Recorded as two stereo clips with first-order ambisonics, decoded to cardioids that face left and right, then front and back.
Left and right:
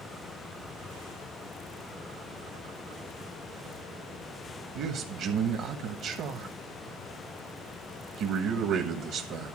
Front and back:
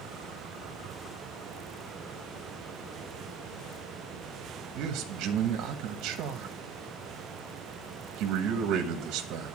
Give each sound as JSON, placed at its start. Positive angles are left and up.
{"t": 4.8, "sound": "a man speaking", "azimuth_deg": -140, "distance_m": 1.3}